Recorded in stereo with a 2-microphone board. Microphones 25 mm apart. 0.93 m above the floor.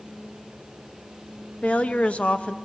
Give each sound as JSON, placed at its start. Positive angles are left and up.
{"t": 1.6, "sound": "a woman speaking", "side_deg": 55, "distance_m": 0.9}